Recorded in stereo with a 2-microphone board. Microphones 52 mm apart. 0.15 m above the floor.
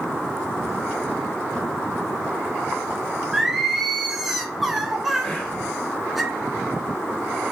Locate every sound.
3.3 s singing: 5° right (ahead or behind), 0.6 m
5.2 s whispering: 15° left (ahead or behind), 1.1 m